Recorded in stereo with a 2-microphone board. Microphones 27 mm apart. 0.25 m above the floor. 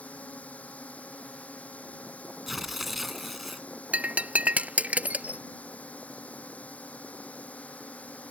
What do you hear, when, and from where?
0.0 s a drone: 65° left (ahead or behind)
2.5 s tearing paper: 5° right (ahead or behind)
3.9 s breaking glass: 70° right (ahead or behind)